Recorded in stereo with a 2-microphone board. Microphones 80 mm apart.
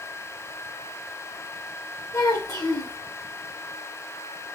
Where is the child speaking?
50° left (ahead or behind), 2.0 m.